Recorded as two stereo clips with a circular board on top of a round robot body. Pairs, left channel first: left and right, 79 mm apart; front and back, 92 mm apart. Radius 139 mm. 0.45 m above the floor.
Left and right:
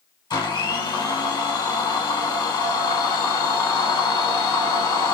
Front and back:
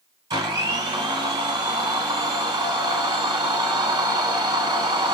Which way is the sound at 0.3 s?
130° left.